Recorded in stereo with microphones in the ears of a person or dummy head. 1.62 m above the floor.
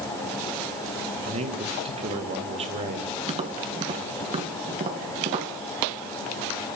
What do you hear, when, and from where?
1.2 s a man speaking: 35° right (ahead or behind), 2.5 m
3.3 s tapping: 30° right (ahead or behind), 1.8 m